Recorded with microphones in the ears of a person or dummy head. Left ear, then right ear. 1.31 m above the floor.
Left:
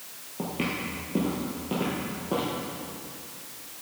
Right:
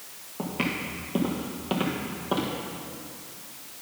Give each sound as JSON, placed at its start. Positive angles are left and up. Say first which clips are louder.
{"t": 0.4, "sound": "footsteps", "louder": "right 1 dB", "side_deg": -5, "distance_m": 1.4}